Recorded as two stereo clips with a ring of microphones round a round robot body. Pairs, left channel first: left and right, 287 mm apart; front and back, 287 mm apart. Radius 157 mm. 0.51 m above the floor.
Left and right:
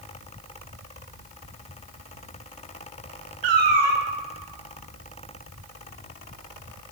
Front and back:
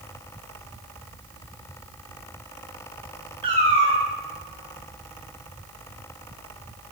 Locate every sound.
3.4 s a cat meowing: 105° right, 1.8 m